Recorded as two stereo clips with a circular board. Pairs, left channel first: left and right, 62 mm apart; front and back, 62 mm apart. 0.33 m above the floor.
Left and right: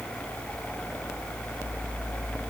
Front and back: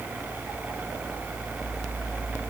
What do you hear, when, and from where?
Only background noise.